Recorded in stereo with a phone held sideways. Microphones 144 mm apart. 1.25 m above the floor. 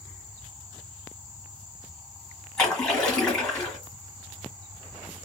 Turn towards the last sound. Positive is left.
turn(degrees=5)  # may be behind; listen again after turning